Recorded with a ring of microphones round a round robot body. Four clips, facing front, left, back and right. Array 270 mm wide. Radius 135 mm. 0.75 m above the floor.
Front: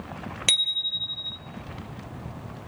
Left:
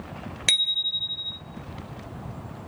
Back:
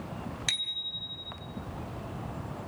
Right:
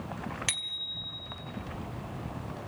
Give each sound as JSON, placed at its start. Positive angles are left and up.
{"t": 0.5, "sound": "a bicycle bell", "azimuth_deg": 35, "distance_m": 2.0}